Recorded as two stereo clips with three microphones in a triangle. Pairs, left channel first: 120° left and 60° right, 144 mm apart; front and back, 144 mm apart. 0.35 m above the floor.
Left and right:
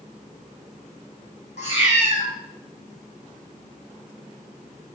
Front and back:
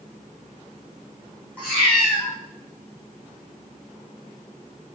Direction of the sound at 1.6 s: 80° left.